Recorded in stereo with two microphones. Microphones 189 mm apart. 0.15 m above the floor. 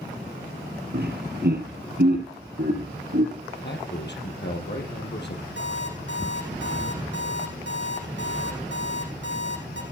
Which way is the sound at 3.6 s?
65° left (ahead or behind).